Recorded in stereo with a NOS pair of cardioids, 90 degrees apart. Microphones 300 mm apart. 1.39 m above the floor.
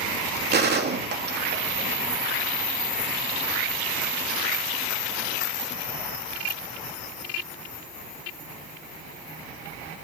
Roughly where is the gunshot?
Ahead right.